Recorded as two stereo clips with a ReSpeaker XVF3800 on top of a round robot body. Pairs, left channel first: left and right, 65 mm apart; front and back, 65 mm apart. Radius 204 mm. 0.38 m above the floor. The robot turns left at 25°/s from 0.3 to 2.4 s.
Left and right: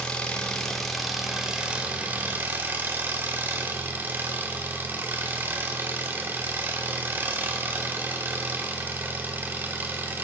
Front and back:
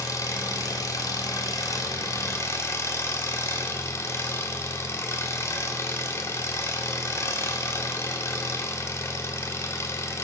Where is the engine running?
15° left, 1.5 m; by 10.2 s 35° right, 1.5 m.